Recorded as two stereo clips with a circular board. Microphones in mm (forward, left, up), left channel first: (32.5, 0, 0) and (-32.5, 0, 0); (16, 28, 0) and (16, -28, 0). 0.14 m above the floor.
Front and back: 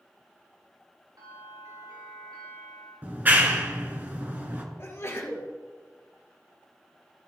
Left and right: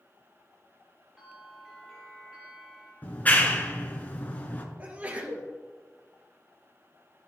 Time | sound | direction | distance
1.2 | a bell | 175° right | 4.5 m
3.0 | a clap | 135° left | 1.7 m
4.8 | a sneeze | 35° right | 3 m